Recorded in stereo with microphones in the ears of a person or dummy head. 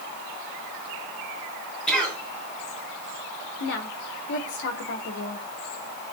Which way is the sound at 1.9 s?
5° left (ahead or behind).